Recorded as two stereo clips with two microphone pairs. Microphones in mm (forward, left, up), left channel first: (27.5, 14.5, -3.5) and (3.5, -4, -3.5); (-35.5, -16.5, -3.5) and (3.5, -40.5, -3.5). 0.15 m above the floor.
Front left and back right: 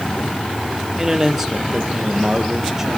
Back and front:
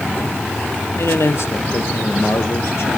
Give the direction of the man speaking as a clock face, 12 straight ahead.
7 o'clock.